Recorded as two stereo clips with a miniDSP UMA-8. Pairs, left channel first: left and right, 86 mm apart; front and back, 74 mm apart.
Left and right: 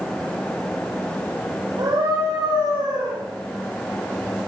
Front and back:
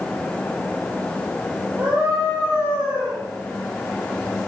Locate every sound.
1.8 s a scream: 110° right, 5.5 m; by 3.2 s 115° right, 6 m